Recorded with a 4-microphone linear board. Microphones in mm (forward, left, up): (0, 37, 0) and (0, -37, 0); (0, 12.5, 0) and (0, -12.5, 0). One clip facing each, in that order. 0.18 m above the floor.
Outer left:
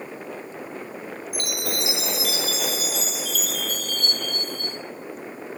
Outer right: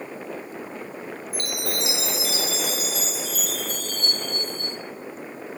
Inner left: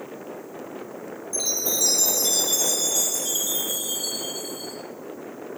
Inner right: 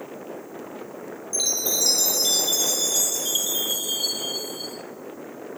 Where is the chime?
35° right (ahead or behind), 0.6 m.